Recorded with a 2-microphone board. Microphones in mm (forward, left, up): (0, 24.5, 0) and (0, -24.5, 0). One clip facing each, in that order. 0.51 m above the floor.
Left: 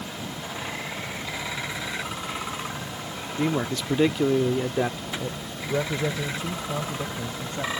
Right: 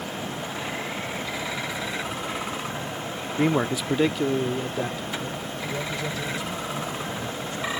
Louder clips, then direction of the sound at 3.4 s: Right 3 dB; 25° right (ahead or behind).